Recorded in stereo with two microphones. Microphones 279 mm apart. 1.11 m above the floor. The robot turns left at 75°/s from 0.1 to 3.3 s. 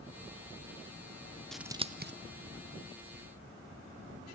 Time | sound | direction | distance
1.5 | scissors | centre (ahead or behind) | 0.6 m